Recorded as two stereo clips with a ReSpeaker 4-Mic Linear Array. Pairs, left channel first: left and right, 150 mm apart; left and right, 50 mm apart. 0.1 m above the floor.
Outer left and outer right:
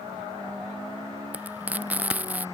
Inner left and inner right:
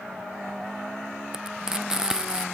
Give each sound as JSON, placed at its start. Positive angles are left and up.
{"t": 1.3, "sound": "frying", "side_deg": -10}